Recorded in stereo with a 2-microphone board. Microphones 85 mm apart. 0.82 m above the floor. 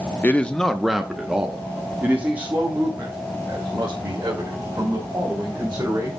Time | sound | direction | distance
0.2 | a man speaking | 20° left (ahead or behind) | 0.6 m